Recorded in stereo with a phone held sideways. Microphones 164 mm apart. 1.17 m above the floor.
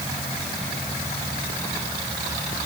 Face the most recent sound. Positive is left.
No sound to turn to.